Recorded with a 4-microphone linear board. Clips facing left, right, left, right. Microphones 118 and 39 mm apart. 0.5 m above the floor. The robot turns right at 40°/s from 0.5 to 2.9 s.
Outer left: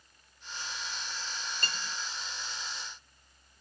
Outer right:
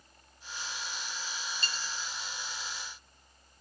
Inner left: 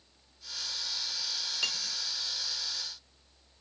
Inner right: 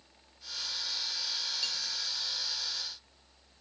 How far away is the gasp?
I don't hear a gasp.